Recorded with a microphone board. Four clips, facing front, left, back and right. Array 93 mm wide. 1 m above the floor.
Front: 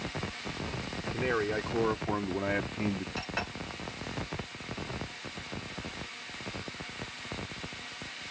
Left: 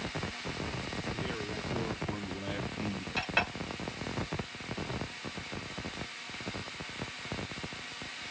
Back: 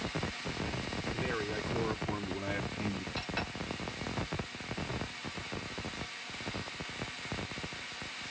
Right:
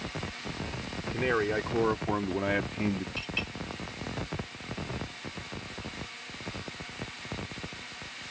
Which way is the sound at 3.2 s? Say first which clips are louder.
Left 5 dB, front 2 dB; 75° left.